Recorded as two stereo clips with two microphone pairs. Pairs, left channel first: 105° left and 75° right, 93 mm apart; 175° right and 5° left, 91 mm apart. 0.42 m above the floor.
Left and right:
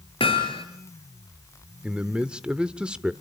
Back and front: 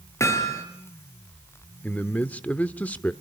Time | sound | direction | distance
0.2 | hammering | 125° left | 4.5 m
1.8 | a man speaking | 135° right | 0.9 m